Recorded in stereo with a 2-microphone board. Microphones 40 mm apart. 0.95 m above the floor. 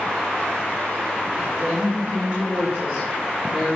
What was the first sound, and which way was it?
A woman speaking, 20° right (ahead or behind).